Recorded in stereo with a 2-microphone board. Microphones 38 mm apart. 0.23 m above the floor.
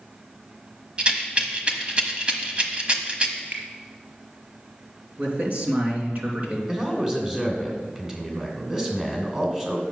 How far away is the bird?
I don't hear a bird.